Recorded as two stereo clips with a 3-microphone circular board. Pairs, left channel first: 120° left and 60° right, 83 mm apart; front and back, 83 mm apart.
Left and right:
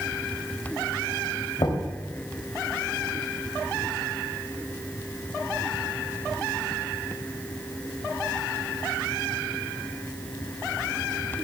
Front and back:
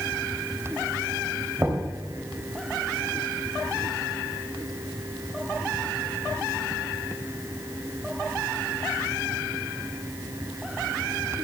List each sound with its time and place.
1.6 s knocking: 120° left, 3 m